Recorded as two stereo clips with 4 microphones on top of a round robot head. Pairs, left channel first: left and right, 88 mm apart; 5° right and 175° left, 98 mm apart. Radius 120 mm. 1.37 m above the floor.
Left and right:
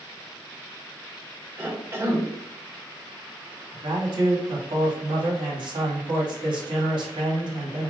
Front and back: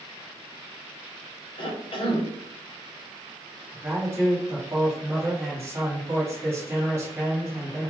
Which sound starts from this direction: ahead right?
A cough, at 1.6 s.